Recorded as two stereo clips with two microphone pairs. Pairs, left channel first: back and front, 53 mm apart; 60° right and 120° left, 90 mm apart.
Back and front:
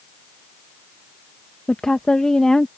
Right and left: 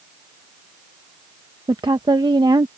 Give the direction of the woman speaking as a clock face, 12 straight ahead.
9 o'clock.